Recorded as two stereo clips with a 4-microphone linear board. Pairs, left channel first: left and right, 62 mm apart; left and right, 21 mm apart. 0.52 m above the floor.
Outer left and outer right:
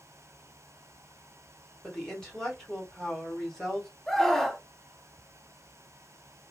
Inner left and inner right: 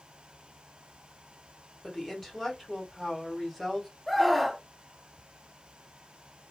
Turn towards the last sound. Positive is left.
turn(degrees=5)  # may be behind; listen again after turning